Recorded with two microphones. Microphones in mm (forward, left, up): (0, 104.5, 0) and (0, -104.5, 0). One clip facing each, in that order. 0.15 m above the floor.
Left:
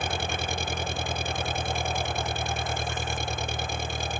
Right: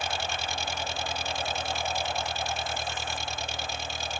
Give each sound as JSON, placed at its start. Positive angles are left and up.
{"t": 0.0, "sound": "an engine running", "side_deg": 50}